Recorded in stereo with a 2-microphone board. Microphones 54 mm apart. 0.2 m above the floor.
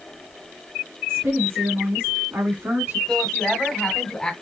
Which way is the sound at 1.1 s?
50° right (ahead or behind).